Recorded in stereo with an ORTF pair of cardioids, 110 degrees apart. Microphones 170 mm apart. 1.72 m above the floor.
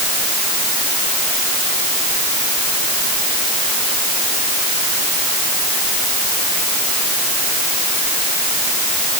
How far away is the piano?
No piano in this recording.